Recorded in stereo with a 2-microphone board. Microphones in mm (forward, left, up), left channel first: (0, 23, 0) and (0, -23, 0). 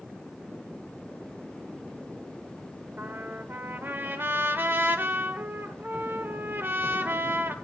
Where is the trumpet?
55° right (ahead or behind), 1.8 m.